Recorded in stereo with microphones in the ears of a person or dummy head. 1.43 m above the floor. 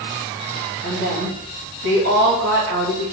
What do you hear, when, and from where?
0.8 s a woman speaking: 65° right (ahead or behind), 1.2 m